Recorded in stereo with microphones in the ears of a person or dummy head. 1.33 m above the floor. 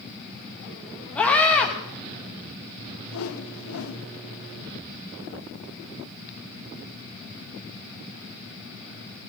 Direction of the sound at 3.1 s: 85° left.